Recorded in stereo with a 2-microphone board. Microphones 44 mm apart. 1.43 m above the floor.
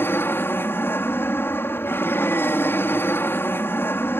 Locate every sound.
0.0 s an aircraft: 60° left (ahead or behind)